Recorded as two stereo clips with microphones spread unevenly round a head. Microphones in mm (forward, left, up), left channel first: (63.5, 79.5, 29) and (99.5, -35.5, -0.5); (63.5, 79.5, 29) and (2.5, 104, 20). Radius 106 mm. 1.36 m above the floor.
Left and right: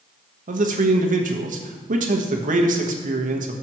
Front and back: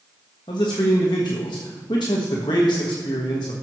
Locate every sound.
0.5 s a man speaking: 60° right, 1.4 m